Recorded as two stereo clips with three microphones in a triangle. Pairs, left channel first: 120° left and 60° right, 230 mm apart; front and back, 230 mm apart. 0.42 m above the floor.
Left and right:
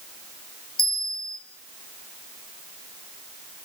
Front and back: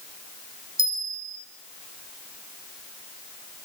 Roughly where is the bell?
Behind left.